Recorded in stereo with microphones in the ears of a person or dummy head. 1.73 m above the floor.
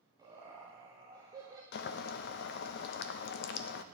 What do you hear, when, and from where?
0.2 s laughter: 20° right (ahead or behind), 1.1 m
1.7 s boiling: 60° left (ahead or behind), 0.5 m